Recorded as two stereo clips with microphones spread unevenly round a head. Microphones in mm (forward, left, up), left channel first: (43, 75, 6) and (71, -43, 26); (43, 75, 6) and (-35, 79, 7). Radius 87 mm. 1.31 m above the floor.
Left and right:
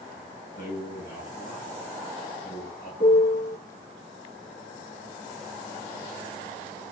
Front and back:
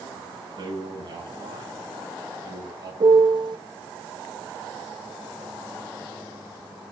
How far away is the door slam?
I don't hear a door slam.